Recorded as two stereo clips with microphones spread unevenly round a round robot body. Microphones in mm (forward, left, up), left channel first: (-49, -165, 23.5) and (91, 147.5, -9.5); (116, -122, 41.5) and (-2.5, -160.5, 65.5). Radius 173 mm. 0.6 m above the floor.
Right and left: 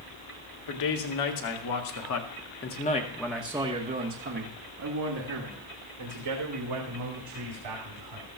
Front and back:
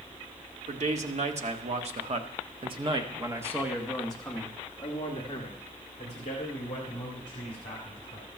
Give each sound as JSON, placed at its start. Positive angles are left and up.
{"t": 0.7, "sound": "a man speaking", "azimuth_deg": -130, "distance_m": 1.9}